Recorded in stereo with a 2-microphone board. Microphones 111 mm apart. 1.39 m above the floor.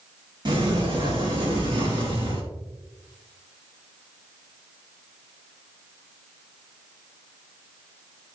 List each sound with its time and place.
0.5 s a sliding door: 45° right (ahead or behind), 2 m